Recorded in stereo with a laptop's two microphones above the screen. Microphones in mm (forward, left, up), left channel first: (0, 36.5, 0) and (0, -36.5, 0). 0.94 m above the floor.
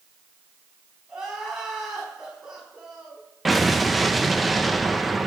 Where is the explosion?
Centre (ahead or behind), 0.7 m.